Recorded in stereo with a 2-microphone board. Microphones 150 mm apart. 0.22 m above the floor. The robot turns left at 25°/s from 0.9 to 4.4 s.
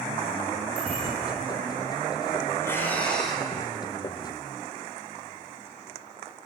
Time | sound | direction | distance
0.8 | a bicycle bell | 10° right (ahead or behind) | 7 m
2.6 | breathing | 20° left (ahead or behind) | 2 m